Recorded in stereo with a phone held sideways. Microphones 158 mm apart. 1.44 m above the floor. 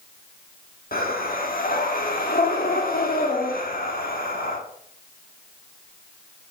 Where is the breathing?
70° left (ahead or behind), 1.7 m.